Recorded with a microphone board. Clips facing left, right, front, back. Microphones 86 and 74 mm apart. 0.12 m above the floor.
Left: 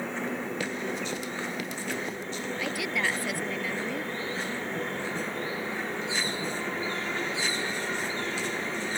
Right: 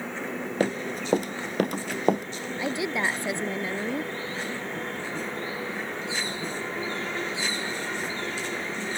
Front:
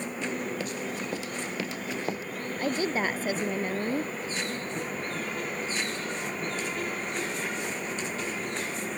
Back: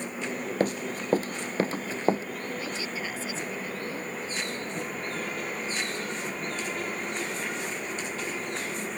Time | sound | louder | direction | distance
0.6 | running footsteps | right 4 dB, back 5 dB | 135° right | ?
2.6 | a woman speaking | right 4 dB, front 6 dB | 30° right | ?